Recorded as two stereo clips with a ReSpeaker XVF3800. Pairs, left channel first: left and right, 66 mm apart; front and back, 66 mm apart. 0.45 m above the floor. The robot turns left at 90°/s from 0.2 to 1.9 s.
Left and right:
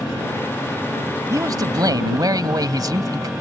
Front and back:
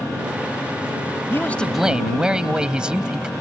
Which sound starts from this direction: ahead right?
A man speaking, at 1.3 s.